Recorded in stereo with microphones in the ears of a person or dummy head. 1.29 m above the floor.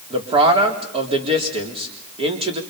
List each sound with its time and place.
0.1 s a man speaking: 30° right (ahead or behind), 3.5 m